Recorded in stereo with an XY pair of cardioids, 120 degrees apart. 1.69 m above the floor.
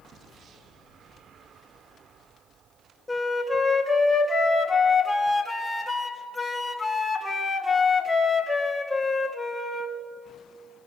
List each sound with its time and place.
3.1 s a flute: 10° left, 2 m